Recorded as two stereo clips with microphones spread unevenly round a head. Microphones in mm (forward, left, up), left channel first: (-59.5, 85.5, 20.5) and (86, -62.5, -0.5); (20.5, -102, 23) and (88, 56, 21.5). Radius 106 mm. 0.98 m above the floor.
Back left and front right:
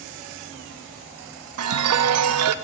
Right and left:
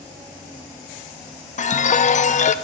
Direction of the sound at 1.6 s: 65° right.